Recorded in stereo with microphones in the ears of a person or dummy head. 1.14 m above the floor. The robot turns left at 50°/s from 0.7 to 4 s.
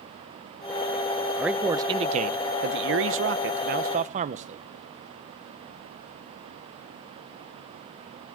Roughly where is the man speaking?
Ahead.